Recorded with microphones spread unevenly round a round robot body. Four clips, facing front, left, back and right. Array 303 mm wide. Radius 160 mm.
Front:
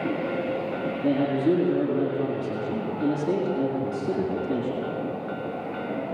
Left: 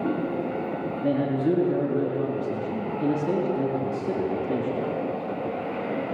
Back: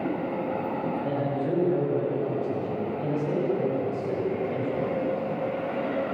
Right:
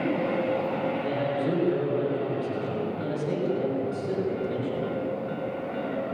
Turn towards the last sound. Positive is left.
turn(degrees=50)